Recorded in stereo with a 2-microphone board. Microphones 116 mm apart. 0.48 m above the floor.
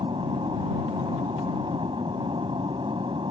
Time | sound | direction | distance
0.0 | an aircraft | 45° right (ahead or behind) | ?